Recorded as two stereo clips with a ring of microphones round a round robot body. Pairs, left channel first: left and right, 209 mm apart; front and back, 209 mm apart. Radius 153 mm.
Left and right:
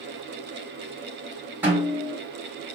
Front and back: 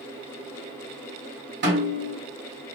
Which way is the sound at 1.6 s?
170° right.